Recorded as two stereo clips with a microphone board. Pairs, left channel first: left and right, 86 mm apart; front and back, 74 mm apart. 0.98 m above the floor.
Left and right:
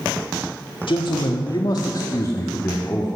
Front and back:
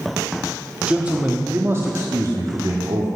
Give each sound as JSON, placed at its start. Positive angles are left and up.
{"t": 0.9, "sound": "a man speaking", "azimuth_deg": 105, "distance_m": 1.4}